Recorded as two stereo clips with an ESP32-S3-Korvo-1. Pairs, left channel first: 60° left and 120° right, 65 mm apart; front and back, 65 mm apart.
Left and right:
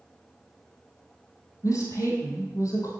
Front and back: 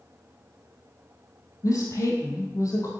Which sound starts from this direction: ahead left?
A woman speaking, at 1.6 s.